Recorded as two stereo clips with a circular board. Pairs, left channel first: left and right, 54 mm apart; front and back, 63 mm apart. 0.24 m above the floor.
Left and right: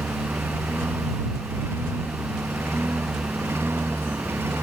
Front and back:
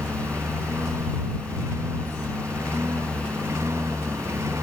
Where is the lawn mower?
135° right.